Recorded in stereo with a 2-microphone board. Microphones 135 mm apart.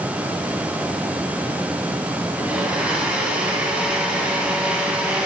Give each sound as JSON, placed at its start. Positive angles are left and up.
{"t": 2.4, "sound": "a blender", "side_deg": -10, "distance_m": 1.4}